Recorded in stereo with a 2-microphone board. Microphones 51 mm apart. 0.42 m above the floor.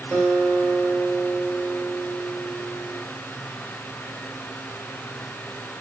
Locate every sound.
0.1 s a guitar: 20° right (ahead or behind), 2.5 m